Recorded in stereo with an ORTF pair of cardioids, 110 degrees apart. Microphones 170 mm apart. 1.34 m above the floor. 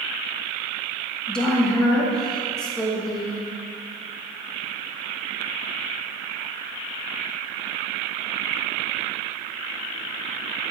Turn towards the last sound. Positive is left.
turn(degrees=5)